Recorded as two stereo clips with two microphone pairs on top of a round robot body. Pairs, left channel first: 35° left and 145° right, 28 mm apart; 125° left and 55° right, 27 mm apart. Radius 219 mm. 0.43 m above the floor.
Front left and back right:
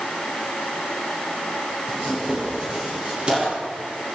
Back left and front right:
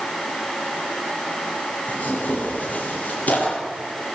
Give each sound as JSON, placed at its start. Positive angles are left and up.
{"t": 1.9, "sound": "tearing paper", "azimuth_deg": 155, "distance_m": 7.5}